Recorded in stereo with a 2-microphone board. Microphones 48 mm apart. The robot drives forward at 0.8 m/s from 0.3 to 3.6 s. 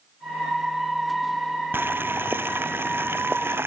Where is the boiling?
50° right (ahead or behind); by 3.7 s 55° right (ahead or behind).